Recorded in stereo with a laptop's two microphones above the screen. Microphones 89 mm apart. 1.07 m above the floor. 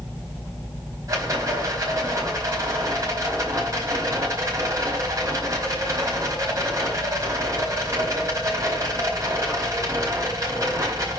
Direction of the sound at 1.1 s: 35° right (ahead or behind).